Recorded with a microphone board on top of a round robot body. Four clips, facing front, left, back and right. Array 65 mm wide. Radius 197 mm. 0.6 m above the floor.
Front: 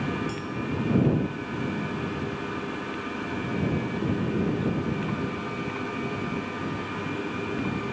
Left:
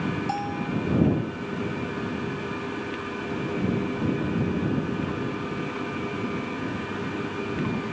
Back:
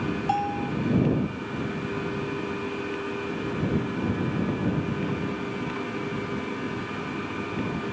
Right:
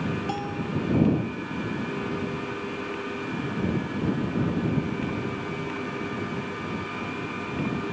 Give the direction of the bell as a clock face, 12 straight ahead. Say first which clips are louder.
Left 2 dB, back 6 dB; 6 o'clock.